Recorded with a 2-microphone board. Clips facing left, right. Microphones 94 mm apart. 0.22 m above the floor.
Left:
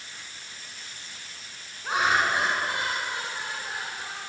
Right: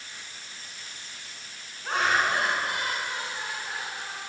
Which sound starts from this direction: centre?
Laughter, at 1.8 s.